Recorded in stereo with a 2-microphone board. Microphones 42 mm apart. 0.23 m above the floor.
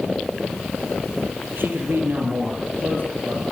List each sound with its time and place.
1.6 s a man speaking: 65° right (ahead or behind), 6 m; by 3.4 s 55° right (ahead or behind), 5.5 m